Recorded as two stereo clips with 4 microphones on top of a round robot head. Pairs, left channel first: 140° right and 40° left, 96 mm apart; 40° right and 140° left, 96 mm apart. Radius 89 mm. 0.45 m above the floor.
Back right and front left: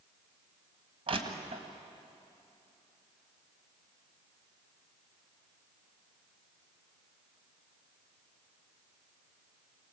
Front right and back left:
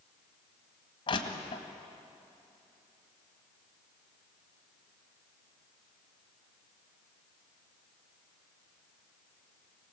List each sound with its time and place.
1.1 s crushing: 5° left, 1.8 m